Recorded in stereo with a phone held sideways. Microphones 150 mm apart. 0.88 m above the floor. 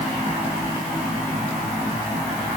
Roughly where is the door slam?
I don't hear a door slam.